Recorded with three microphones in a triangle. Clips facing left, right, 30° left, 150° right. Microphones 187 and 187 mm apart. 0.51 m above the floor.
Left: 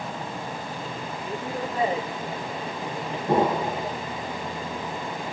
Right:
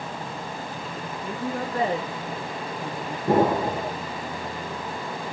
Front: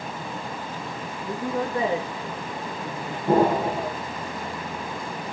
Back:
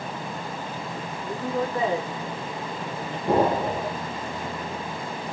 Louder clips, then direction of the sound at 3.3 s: Right 2 dB, front 2 dB; 60° right.